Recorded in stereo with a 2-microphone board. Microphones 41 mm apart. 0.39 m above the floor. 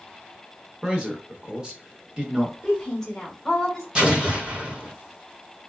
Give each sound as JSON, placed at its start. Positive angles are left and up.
{"t": 0.8, "sound": "a man speaking", "side_deg": -20, "distance_m": 0.8}
{"t": 2.6, "sound": "a woman speaking", "side_deg": 10, "distance_m": 1.3}
{"t": 4.0, "sound": "an explosion", "side_deg": -25, "distance_m": 1.9}